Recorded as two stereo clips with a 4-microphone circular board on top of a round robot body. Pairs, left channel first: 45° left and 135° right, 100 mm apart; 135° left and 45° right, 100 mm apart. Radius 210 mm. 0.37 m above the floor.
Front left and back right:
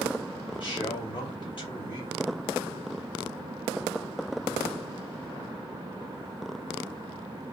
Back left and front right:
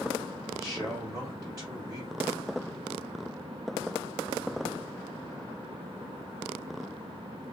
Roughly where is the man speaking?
Ahead.